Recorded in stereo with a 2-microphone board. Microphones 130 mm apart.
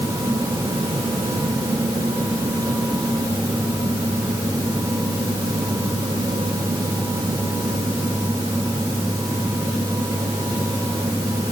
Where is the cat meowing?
I don't hear a cat meowing.